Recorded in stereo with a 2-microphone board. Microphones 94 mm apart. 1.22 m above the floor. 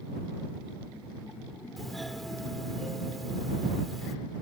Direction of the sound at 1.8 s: Centre (ahead or behind).